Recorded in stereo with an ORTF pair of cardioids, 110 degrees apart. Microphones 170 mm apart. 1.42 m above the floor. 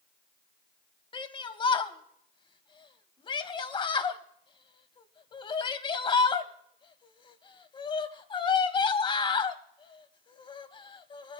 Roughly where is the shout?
Ahead left.